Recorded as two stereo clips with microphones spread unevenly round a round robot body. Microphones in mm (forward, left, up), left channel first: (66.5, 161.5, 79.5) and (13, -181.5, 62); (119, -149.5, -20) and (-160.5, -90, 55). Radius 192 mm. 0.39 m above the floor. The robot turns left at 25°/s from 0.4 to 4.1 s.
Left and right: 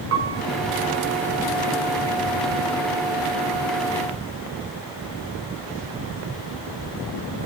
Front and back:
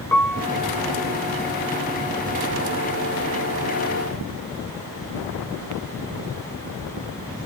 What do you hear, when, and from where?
0.1 s a piano: 75° right, 1.3 m